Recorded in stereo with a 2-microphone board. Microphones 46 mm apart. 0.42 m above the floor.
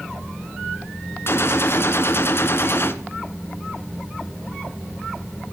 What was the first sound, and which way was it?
A gunshot, 60° left (ahead or behind).